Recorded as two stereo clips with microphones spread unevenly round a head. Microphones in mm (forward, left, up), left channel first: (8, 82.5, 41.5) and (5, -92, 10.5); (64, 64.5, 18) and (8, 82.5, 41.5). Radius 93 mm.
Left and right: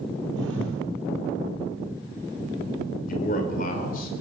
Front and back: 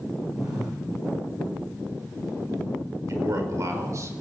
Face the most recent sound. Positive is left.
turn(degrees=135)